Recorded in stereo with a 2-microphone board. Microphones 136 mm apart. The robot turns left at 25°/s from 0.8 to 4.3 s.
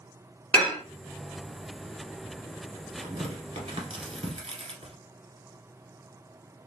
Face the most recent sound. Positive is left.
turn(degrees=-45)  # may be behind; listen again after turning